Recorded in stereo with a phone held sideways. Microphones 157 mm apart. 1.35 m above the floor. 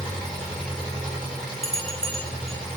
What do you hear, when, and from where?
0.0 s an engine running: 5° left (ahead or behind), 3 m
1.6 s a bell: 40° right (ahead or behind), 0.9 m